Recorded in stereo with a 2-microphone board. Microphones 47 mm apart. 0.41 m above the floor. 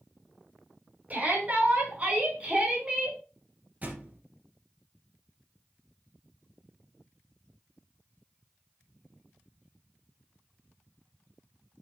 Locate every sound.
1.1 s a shout: 30° right (ahead or behind), 5 m; by 3.2 s 20° right (ahead or behind), 4.5 m
3.8 s a thud: 30° right (ahead or behind), 2.5 m